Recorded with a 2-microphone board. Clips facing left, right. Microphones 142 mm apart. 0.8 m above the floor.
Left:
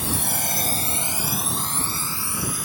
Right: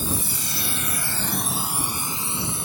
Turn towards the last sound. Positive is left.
turn(degrees=-25)  # may be behind; listen again after turning